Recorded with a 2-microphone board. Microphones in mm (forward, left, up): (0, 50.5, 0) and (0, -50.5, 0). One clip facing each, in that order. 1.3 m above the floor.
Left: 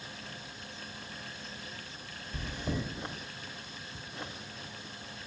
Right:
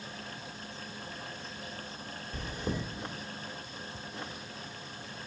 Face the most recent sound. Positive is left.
turn(degrees=-40)  # may be behind; listen again after turning